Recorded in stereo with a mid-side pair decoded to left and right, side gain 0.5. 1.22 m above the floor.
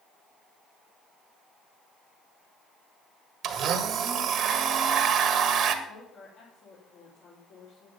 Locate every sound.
3.4 s a blender: 60° right, 1.6 m
5.8 s a woman speaking: 60° left, 4.5 m